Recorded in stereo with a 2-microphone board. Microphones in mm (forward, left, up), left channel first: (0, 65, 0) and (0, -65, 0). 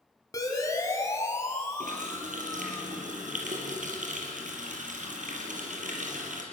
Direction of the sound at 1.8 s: 80° right.